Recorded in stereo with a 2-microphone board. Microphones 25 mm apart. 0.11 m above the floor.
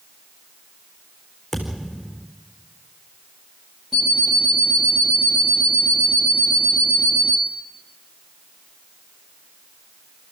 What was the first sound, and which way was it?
A thud, centre (ahead or behind).